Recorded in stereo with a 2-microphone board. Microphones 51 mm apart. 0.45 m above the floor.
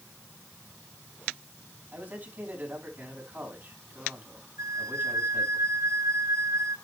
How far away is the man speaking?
About 4.5 m.